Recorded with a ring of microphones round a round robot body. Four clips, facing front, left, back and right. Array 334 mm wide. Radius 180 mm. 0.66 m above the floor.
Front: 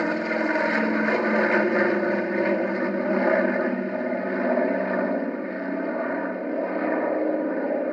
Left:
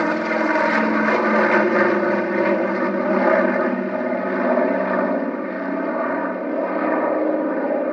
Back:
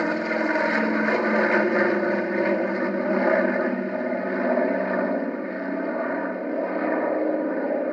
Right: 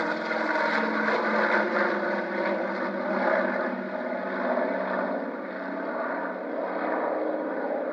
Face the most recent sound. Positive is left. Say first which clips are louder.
# left 8 dB, even
turn(degrees=90)